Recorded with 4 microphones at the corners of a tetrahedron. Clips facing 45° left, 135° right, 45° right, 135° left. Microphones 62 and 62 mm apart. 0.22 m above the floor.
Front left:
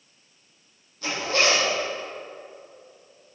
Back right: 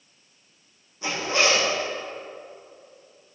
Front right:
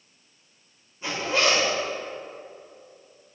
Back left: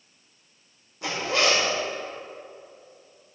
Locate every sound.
1.0 s a zipper: 155° left, 4 m